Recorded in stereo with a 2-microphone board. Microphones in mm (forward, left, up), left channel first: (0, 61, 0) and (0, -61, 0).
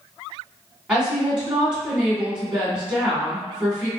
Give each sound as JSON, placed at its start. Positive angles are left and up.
{"t": 0.9, "sound": "a woman speaking", "side_deg": -5, "distance_m": 1.8}